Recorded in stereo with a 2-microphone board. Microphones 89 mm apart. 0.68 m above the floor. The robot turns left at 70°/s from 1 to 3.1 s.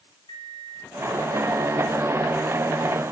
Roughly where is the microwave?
Left.